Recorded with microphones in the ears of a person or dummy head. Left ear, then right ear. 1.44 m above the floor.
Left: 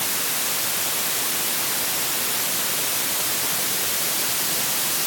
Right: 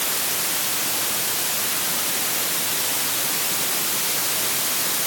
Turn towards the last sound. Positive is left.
No sound to turn to.